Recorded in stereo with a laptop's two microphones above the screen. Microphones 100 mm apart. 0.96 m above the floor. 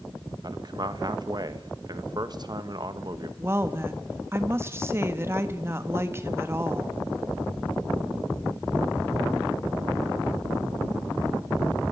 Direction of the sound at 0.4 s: 45° right (ahead or behind).